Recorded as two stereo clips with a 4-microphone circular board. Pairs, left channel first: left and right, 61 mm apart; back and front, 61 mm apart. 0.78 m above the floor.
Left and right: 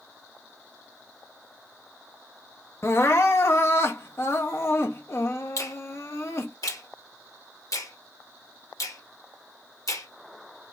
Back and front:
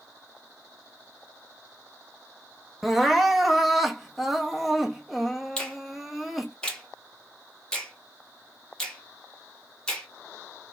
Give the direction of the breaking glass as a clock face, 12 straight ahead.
I don't hear breaking glass.